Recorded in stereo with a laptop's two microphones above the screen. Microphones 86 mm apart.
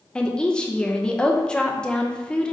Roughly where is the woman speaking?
Centre.